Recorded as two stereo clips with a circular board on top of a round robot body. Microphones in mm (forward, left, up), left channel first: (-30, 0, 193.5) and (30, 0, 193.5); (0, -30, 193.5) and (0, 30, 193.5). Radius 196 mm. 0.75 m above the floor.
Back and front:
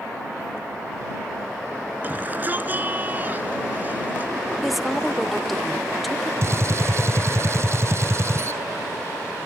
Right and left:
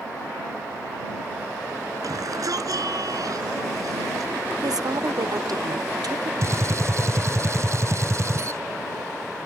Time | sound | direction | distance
2.0 | a shout | 60° left | ?
4.6 | a woman speaking | 90° left | ?
6.4 | a gunshot | 45° left | ?